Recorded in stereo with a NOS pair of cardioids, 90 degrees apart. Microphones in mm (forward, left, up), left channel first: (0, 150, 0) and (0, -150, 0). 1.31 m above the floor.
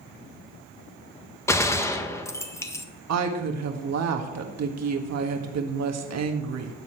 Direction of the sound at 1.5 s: 10° left.